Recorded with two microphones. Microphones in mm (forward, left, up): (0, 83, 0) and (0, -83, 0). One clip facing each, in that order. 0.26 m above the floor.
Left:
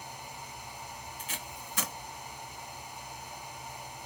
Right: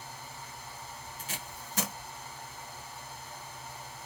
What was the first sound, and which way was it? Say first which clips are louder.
Tape being pulled: left 1 dB; 40° right (ahead or behind).